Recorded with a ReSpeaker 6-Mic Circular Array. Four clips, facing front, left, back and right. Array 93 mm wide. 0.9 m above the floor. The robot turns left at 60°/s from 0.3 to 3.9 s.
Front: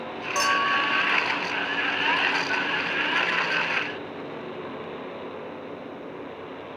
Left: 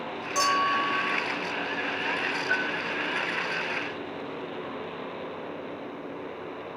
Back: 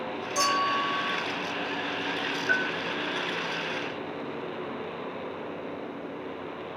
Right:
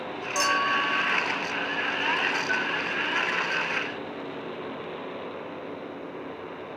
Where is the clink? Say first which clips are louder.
Left 1 dB, front 2 dB; 15° right, 1.3 m; by 1.2 s 65° right, 1.3 m.